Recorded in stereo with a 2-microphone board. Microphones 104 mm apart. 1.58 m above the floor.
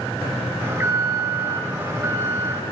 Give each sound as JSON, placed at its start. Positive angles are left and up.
{"t": 0.6, "sound": "an alarm", "side_deg": -20, "distance_m": 2.5}